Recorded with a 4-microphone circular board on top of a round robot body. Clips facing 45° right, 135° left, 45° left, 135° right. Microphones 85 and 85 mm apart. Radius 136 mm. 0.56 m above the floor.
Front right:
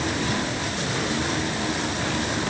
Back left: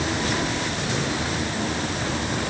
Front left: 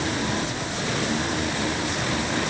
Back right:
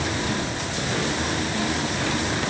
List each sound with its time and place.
Only background noise.